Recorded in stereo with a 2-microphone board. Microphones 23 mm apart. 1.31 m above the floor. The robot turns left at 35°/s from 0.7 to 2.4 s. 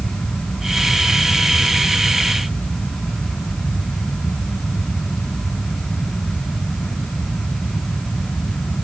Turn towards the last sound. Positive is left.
No sound to turn to.